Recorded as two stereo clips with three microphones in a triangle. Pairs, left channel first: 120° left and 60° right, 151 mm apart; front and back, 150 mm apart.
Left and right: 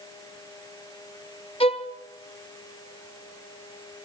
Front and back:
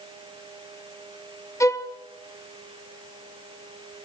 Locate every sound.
1.6 s a violin: 70° left, 2 m